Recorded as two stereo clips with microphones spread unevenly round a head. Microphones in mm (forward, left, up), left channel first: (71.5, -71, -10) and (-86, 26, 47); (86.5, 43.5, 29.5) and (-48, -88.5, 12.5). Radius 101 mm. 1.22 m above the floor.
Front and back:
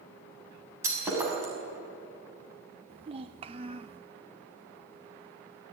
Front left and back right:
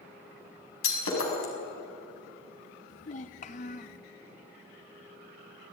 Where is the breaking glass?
75° left, 6 m.